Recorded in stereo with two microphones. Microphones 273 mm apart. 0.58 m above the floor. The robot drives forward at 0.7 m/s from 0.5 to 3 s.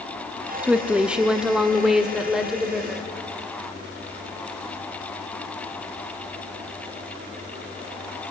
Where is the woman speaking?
5° right (ahead or behind), 0.6 m; by 3.1 s centre (ahead or behind), 2 m.